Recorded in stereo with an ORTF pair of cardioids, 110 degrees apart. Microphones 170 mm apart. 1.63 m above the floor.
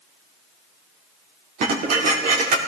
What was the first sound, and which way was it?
Dishes clattering, 65° right.